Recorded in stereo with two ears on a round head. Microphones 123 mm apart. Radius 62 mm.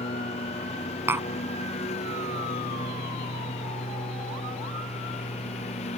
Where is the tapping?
15° right (ahead or behind).